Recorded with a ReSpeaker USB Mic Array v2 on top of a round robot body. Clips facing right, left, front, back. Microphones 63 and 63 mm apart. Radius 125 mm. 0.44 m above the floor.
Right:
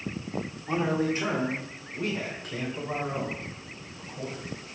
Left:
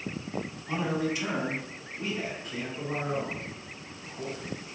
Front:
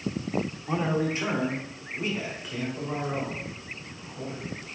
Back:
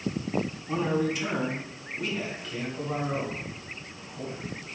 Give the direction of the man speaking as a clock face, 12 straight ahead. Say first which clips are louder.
Right 3 dB, even; 1 o'clock.